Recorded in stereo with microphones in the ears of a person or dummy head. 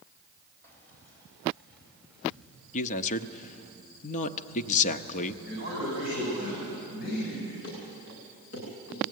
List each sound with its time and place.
0.6 s keys jangling: 15° left (ahead or behind), 5 m; by 3.7 s 5° right (ahead or behind), 5 m
2.7 s a man speaking: 40° left (ahead or behind), 0.8 m
5.4 s a man speaking: 50° left (ahead or behind), 8 m
7.6 s running footsteps: 60° left (ahead or behind), 9.5 m